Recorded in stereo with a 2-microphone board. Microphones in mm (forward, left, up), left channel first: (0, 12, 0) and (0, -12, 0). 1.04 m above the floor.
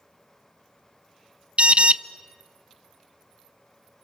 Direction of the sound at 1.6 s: 55° right (ahead or behind).